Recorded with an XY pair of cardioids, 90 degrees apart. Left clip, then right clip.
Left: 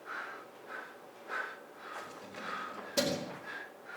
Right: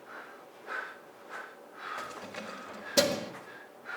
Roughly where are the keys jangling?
Ahead right.